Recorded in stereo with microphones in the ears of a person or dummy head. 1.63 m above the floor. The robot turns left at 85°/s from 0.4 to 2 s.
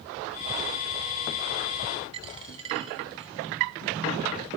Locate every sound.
2.1 s a dropped coin: 25° right (ahead or behind), 1.2 m